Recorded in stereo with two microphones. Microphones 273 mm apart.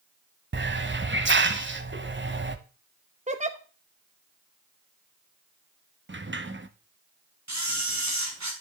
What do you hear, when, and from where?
0.5 s a hiss: 45° right (ahead or behind), 0.8 m
3.3 s a giggle: 25° right (ahead or behind), 1.0 m
6.1 s a sliding door: 45° right (ahead or behind), 0.9 m
7.5 s a camera shutter: 80° right, 3 m